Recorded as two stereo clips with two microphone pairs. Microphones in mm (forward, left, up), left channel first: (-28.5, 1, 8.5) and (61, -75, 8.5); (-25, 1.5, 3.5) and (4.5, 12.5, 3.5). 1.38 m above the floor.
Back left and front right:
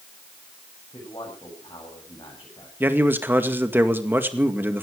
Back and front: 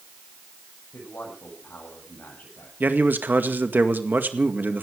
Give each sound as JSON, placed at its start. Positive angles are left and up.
{"t": 0.9, "sound": "a man speaking", "azimuth_deg": -165, "distance_m": 8.0}
{"t": 2.8, "sound": "a man speaking", "azimuth_deg": 30, "distance_m": 2.0}